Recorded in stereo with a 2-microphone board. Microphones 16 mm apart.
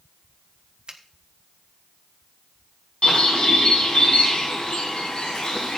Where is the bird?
90° left, 4.5 m.